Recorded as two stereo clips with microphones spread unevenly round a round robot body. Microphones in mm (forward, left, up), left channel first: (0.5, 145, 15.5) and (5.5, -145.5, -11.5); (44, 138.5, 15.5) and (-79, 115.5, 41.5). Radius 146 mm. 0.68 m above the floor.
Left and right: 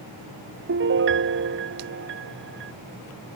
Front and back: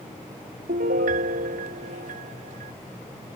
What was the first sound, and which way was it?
A piano, 140° right.